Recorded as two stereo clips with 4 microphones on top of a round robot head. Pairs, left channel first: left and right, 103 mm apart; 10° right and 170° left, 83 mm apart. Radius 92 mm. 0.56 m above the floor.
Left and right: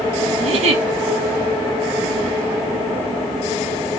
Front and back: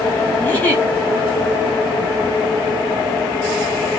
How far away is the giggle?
About 7 m.